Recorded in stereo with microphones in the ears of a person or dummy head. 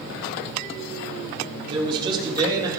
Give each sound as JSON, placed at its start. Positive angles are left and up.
{"t": 1.7, "sound": "a man speaking", "side_deg": -30, "distance_m": 3.0}